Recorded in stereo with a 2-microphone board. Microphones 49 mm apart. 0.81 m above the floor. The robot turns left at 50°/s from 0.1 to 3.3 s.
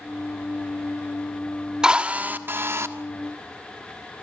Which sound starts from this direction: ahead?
A drill, at 1.8 s.